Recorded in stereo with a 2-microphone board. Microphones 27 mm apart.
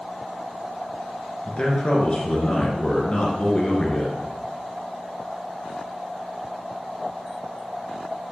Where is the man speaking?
40° left (ahead or behind), 2 m.